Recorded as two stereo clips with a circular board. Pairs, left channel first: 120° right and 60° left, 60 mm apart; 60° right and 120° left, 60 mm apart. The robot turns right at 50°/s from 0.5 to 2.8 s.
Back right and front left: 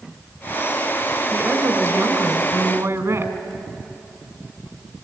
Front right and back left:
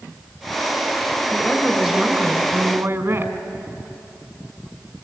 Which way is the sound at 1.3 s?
15° left.